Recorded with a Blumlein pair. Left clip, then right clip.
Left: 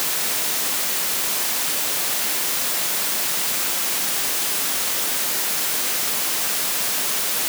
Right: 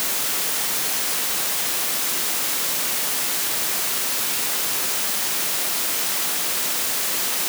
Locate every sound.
Only background noise.